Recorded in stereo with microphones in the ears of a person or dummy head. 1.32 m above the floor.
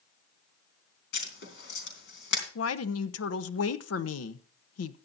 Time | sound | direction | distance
1.1 | writing | 75° left (ahead or behind) | 3.5 m
2.5 | a woman speaking | 80° left | 0.9 m